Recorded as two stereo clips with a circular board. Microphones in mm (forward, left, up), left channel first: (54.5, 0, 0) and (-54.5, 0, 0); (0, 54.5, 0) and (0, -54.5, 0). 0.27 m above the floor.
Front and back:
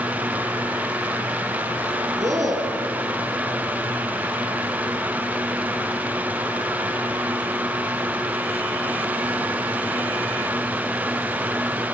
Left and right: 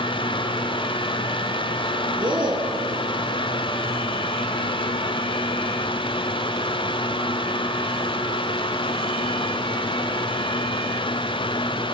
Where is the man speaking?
125° right, 3.5 m.